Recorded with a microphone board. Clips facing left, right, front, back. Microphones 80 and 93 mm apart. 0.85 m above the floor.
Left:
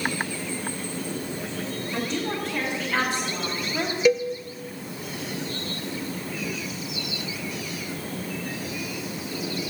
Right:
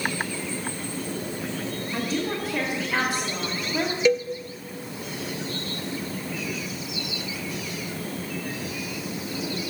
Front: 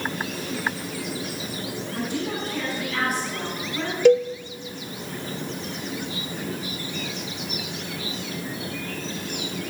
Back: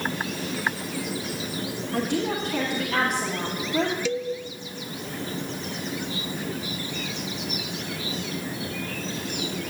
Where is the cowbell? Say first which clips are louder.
Left 2 dB, front 12 dB; 5° left, 0.7 m.